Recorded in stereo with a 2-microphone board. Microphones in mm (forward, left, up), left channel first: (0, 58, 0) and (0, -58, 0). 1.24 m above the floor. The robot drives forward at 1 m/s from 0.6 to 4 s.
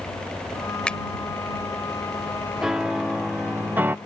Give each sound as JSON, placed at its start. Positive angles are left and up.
{"t": 0.9, "sound": "a finger snap", "side_deg": 10}
{"t": 2.6, "sound": "a piano", "side_deg": -5}